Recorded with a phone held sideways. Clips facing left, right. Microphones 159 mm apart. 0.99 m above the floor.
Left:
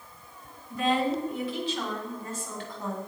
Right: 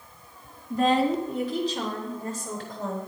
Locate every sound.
0.7 s a woman speaking: 40° right (ahead or behind), 2 m